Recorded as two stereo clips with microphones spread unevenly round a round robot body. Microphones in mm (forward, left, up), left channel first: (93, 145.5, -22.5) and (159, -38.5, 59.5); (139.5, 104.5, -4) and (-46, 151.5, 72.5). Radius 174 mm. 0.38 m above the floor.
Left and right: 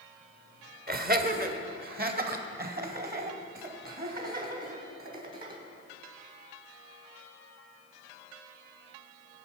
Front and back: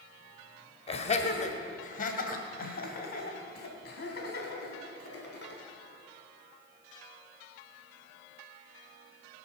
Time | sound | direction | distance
0.9 | laughter | 15° right | 1.6 m